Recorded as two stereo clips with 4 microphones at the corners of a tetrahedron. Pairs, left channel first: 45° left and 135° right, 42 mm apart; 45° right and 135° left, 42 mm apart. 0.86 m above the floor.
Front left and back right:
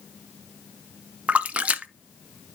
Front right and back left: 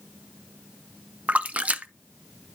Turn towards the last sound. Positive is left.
turn(degrees=180)